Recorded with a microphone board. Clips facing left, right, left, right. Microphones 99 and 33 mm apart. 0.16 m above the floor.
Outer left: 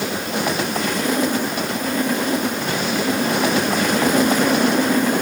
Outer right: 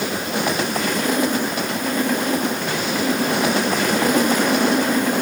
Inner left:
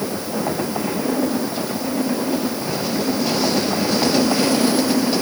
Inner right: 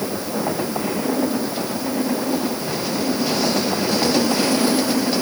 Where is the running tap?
No running tap in this recording.